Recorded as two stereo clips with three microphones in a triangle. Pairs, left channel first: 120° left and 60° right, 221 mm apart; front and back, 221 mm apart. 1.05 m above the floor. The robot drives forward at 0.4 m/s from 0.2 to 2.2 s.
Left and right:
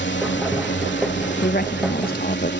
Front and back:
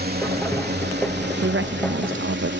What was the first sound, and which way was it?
A drone, 145° left.